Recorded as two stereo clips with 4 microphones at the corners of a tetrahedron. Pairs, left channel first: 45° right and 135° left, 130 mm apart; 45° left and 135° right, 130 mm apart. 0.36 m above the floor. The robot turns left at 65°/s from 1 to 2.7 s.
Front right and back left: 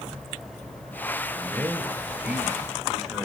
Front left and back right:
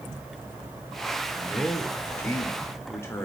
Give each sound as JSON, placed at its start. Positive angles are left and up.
{"t": 1.4, "sound": "a man speaking", "azimuth_deg": 135, "distance_m": 0.9}